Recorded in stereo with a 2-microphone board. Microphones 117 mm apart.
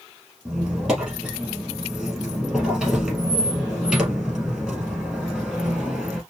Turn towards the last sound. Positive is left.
turn(degrees=-5)  # may be behind; listen again after turning